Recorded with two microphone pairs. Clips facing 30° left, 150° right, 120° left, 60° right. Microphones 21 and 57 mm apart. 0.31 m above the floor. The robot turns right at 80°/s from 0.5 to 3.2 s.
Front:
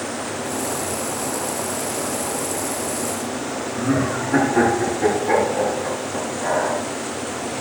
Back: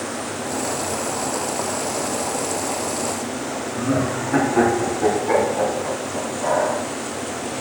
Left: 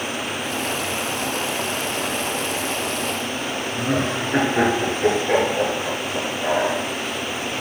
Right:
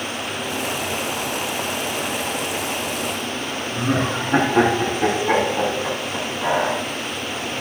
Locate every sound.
3.7 s laughter: 70° right, 2.5 m